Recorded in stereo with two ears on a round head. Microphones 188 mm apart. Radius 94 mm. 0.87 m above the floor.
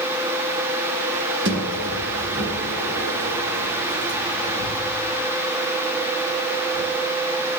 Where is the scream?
I don't hear a scream.